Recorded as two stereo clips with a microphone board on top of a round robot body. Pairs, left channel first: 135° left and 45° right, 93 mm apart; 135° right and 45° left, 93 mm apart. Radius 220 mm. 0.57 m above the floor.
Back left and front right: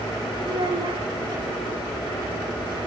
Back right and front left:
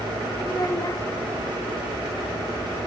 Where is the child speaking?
80° right, 1.5 m.